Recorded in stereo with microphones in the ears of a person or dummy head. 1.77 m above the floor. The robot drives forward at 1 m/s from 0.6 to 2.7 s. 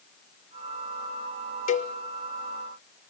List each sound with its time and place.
1.7 s a cowbell: 40° left (ahead or behind), 1.1 m; by 1.9 s 35° left (ahead or behind), 1.3 m